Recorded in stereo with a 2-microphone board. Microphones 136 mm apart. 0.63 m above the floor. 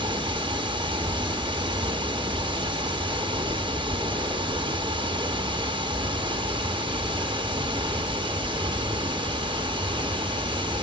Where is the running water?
35° right (ahead or behind), 0.7 m.